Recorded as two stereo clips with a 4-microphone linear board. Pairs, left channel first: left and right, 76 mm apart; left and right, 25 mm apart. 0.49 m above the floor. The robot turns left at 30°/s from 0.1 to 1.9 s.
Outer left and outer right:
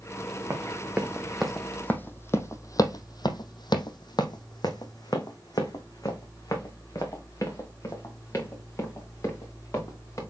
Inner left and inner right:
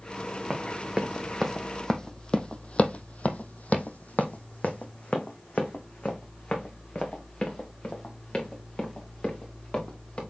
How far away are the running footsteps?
About 1.6 m.